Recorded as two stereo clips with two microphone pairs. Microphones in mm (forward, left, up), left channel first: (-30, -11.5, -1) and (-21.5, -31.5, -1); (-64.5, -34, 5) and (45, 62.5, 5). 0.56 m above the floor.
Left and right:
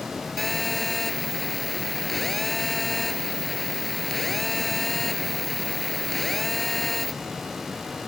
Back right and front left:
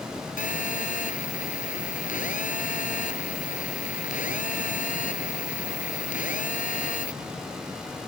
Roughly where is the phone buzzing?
Behind.